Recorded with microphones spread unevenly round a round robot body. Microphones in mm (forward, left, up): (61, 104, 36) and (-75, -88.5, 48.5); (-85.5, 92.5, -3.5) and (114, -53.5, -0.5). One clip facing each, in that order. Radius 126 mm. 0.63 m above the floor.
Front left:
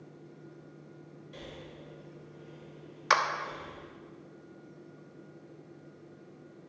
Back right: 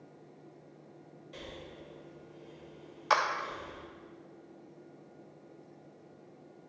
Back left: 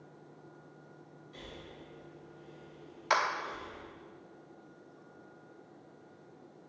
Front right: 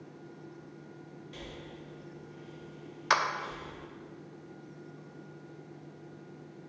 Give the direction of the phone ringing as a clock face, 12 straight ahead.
No phone ringing in this recording.